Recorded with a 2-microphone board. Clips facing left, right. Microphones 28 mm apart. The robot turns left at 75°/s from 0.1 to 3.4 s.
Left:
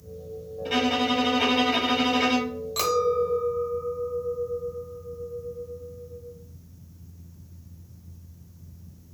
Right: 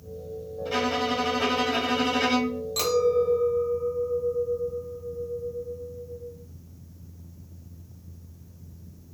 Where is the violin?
130° left, 2.5 m; by 2.6 s 20° right, 2.5 m.